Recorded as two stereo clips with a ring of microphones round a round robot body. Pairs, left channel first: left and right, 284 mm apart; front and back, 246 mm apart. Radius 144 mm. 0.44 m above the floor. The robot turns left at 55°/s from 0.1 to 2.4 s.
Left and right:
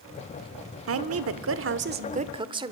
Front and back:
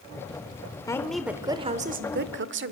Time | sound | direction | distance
0.9 | a woman speaking | 75° right | 1.1 m